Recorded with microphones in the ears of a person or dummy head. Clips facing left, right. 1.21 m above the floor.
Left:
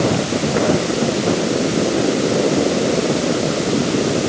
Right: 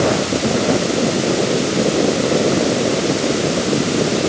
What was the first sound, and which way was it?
Only background noise.